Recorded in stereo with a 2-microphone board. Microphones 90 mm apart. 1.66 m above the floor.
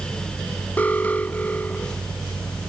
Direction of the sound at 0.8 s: 15° left (ahead or behind).